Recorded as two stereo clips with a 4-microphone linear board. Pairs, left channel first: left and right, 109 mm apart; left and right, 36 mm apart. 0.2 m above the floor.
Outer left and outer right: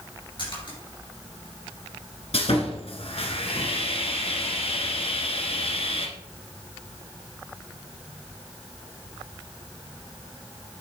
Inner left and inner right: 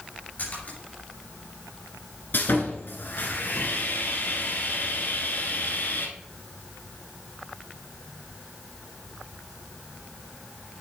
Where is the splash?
50° left (ahead or behind), 4 m.